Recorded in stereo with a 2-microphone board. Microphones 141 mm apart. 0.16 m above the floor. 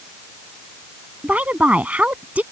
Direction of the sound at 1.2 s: 10° right (ahead or behind).